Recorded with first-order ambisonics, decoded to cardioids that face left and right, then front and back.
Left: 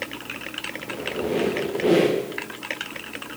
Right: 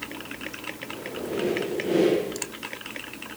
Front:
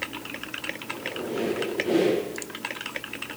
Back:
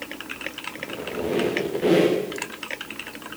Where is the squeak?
145° left, 7.5 m.